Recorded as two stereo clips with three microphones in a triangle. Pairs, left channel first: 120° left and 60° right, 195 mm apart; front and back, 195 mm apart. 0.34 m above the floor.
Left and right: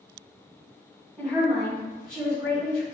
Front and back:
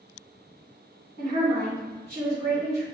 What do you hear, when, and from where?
1.2 s a woman speaking: 15° left, 1.6 m